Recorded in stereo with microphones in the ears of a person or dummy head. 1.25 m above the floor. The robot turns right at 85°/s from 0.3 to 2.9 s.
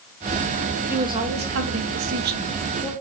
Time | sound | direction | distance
0.9 | a woman speaking | 175° right | 0.6 m